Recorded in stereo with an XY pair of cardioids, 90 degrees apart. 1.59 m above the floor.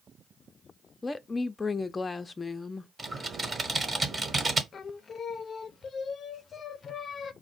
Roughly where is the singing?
Ahead left.